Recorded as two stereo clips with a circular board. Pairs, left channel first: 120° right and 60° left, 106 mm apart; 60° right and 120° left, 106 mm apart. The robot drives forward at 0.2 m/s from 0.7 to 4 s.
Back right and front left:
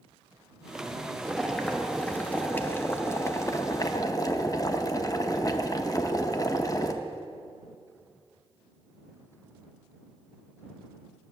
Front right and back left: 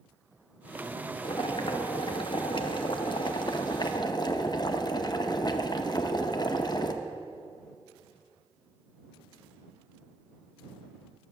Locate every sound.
1.2 s boiling: 35° right, 0.9 m; by 6.9 s 80° right, 0.7 m